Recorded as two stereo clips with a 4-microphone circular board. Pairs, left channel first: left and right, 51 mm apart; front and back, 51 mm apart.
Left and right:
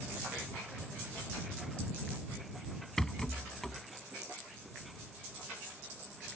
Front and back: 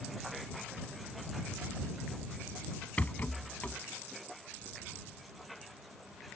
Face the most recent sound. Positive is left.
turn(degrees=15)